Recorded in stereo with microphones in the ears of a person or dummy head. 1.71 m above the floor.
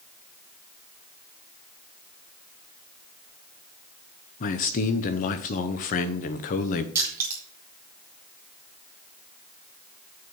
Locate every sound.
4.4 s a man speaking: 45° left (ahead or behind), 0.7 m
7.0 s crushing: 15° right (ahead or behind), 2 m